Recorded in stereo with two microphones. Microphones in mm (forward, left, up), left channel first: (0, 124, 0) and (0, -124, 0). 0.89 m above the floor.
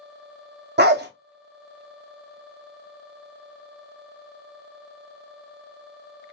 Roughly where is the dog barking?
Right.